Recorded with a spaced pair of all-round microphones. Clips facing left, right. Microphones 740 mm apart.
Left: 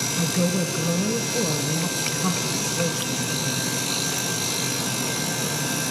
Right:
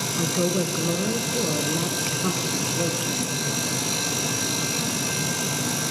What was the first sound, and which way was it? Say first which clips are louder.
A woman speaking: right 1 dB; 30° left (ahead or behind).